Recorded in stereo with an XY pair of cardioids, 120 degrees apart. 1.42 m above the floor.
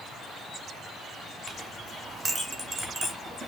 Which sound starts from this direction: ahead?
A clink, at 1.5 s.